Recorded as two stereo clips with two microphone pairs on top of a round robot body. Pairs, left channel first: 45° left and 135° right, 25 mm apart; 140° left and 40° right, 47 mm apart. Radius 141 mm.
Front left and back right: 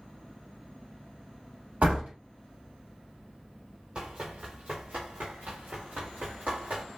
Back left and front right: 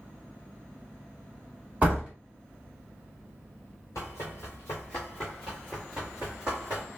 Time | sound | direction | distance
1.8 | a door slam | 105° right | 1.7 m
4.0 | running footsteps | 175° left | 1.3 m